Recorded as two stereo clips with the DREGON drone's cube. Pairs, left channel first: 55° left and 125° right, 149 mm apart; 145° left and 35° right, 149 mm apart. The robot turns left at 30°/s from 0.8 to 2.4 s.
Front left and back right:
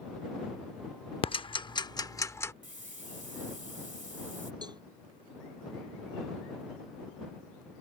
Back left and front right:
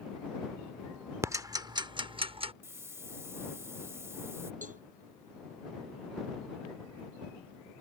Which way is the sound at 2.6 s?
105° right.